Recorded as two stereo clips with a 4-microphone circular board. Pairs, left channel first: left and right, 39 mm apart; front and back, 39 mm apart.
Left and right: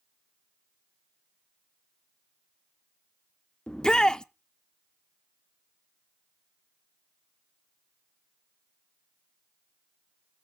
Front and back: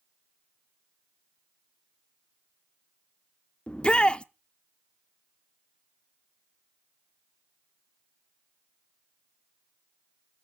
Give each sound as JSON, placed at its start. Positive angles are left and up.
{"t": 3.7, "sound": "a shout", "azimuth_deg": 35, "distance_m": 0.7}